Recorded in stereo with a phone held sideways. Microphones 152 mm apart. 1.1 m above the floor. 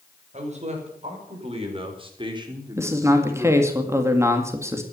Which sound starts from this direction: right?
A man speaking, at 0.3 s.